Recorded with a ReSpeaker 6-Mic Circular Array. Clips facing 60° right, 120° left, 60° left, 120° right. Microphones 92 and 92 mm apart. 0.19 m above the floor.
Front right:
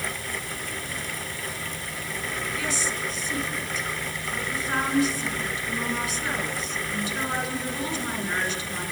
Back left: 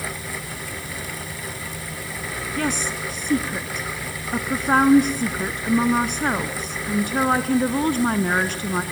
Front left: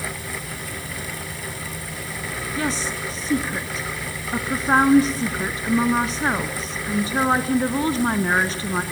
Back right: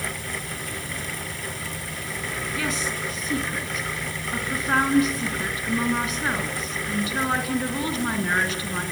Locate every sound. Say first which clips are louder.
2.6 s a woman speaking: back left 8 dB, front left 4 dB; 110° left, 2.5 m